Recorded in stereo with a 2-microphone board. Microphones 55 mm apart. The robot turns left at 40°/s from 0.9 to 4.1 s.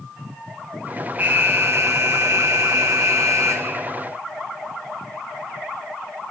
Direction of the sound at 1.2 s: 30° right.